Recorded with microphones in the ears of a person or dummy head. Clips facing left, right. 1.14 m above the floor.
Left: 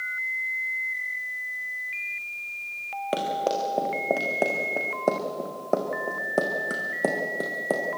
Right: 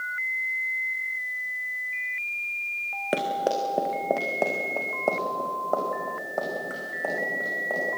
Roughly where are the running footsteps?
Centre.